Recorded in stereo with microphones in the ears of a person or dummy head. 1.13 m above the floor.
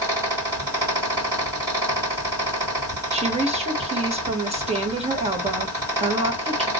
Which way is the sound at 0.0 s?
15° right (ahead or behind).